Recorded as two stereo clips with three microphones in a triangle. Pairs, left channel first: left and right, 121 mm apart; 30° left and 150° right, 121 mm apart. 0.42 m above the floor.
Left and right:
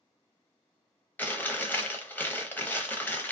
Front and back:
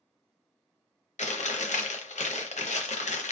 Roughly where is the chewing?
Ahead.